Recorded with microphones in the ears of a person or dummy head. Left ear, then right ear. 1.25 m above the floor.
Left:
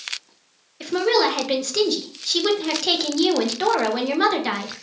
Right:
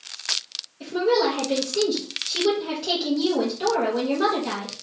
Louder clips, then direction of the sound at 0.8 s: Left 2 dB; 50° left (ahead or behind).